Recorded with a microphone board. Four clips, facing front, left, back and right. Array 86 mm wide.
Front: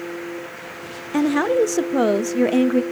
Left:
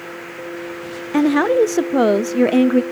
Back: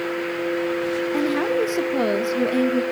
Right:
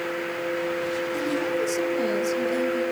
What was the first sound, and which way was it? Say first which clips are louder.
A woman speaking: left 15 dB, front 6 dB; 75° left.